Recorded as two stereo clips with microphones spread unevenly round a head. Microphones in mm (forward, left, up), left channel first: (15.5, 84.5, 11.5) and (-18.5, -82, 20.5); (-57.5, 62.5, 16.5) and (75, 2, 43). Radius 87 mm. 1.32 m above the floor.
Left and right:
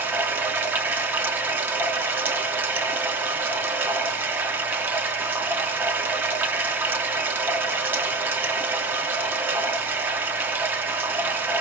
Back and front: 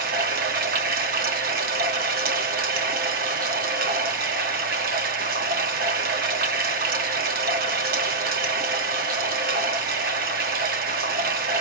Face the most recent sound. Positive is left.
turn(degrees=-25)